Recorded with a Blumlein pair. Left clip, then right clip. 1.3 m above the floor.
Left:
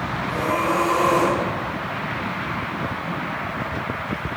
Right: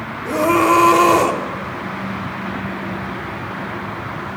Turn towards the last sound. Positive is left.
turn(degrees=-25)